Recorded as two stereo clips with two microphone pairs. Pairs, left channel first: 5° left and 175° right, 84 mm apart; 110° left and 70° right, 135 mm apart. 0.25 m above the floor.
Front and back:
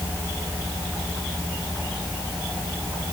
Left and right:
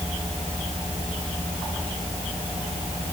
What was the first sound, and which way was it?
Only background noise.